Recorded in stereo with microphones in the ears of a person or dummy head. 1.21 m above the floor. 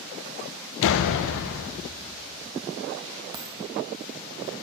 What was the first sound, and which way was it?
A door slam, 70° left (ahead or behind).